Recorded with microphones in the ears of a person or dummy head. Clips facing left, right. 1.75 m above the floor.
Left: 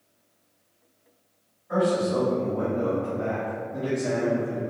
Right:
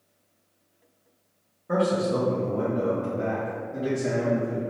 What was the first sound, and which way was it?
A man speaking, 75° right (ahead or behind).